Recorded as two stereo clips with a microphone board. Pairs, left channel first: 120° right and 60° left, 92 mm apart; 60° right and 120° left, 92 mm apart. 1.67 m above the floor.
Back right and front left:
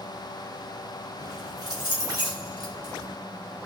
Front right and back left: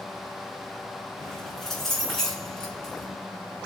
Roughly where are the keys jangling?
Ahead left.